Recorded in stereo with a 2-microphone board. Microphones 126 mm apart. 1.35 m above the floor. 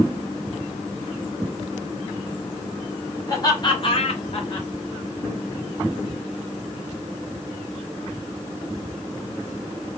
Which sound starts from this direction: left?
Laughter, at 3.3 s.